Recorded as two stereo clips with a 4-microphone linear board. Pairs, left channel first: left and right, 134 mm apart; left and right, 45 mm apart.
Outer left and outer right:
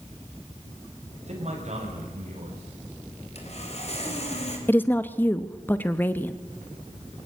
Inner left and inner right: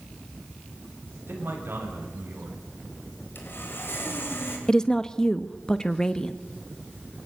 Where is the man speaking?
60° right (ahead or behind), 6.5 m.